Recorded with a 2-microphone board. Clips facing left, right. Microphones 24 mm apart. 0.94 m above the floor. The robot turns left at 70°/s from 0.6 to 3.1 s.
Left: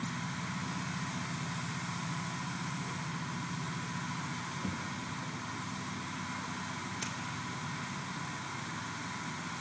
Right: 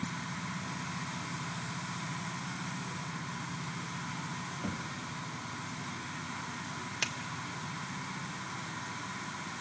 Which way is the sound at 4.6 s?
30° right (ahead or behind).